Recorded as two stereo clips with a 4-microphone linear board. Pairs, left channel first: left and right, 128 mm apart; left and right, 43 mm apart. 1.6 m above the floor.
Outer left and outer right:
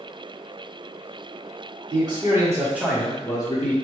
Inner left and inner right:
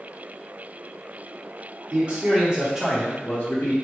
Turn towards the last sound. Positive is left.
turn(degrees=50)  # may be behind; listen again after turning